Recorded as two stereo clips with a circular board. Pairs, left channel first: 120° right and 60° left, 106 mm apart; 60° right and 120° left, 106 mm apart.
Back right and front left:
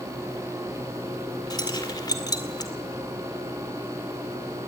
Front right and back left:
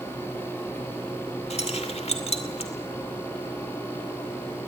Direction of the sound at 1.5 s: 70° right.